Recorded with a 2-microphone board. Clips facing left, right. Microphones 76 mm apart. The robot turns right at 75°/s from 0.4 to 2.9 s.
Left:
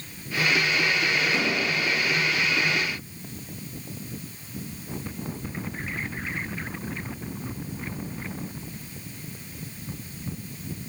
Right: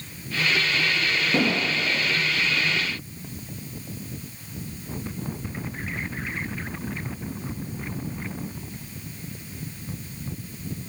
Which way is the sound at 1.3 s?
120° right.